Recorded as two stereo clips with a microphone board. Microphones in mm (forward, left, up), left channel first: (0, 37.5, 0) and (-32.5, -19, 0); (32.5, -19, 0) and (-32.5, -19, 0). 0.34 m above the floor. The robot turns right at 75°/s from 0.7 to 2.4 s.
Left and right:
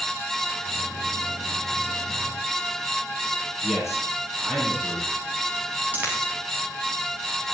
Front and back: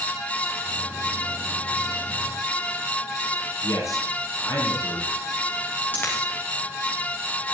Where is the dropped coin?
60° right, 8 m.